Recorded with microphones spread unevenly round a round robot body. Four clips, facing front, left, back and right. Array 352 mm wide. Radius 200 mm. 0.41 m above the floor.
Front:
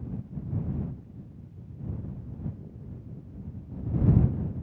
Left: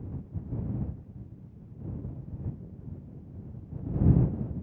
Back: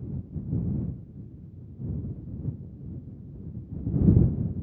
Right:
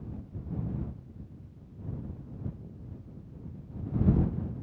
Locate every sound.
Only background noise.